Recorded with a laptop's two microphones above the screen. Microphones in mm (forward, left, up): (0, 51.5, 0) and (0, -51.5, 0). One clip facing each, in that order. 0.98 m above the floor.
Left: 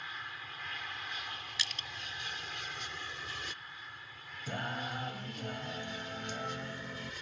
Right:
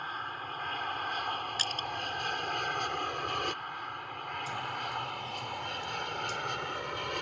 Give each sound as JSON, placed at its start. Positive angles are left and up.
{"t": 0.0, "sound": "an aircraft", "side_deg": -45}
{"t": 1.6, "sound": "crushing", "side_deg": -45}
{"t": 4.5, "sound": "singing", "side_deg": 55}